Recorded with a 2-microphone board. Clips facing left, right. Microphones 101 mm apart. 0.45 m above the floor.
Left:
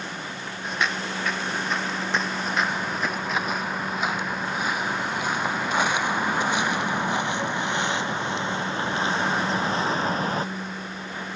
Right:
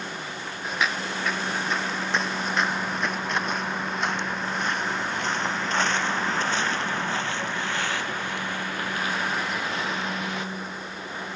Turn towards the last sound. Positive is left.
turn(degrees=40)  # may be behind; listen again after turning